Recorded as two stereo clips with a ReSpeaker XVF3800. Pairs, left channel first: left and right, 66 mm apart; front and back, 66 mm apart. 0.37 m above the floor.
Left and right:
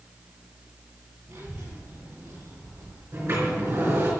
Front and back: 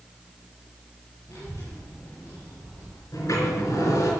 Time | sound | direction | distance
1.3 | a child speaking | 55° right | 5.5 m
3.1 | a sliding door | 40° right | 4 m